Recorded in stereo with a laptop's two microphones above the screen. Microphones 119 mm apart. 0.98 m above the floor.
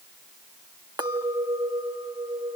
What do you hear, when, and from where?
1.0 s a clink: 35° right (ahead or behind), 1.0 m